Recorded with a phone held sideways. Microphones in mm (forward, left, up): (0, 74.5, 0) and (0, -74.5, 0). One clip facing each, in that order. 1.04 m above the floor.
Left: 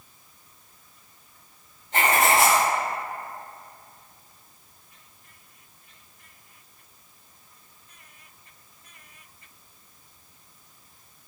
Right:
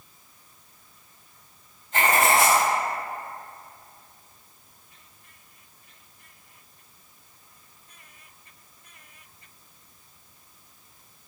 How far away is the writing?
About 1.4 m.